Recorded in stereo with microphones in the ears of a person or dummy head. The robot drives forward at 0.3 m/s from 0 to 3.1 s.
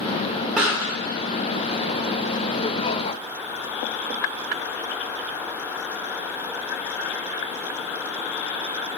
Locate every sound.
0.6 s a pop: 5° right (ahead or behind), 1.1 m